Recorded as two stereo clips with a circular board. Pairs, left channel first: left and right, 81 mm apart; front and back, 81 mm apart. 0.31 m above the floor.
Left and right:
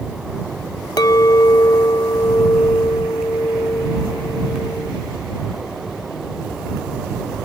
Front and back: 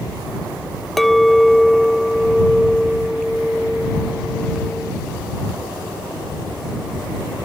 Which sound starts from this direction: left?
A clink, at 1.0 s.